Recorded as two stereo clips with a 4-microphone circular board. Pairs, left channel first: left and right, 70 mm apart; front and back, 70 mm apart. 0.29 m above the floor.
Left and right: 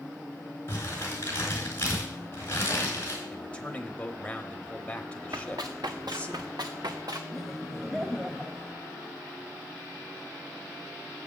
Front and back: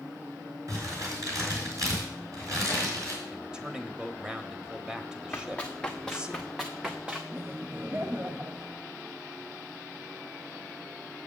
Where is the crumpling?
140° left, 4 m.